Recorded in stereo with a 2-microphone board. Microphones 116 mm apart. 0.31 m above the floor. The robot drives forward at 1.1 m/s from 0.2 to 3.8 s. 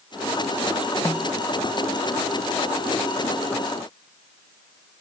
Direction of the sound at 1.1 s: 30° left (ahead or behind).